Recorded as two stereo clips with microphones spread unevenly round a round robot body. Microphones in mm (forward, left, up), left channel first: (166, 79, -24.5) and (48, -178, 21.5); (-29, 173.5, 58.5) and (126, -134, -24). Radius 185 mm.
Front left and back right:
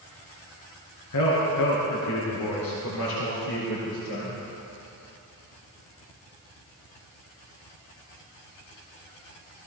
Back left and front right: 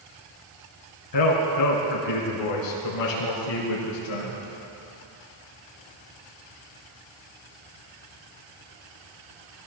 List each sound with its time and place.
1.1 s a man speaking: 105° left, 4.5 m; by 4.4 s 125° left, 5.5 m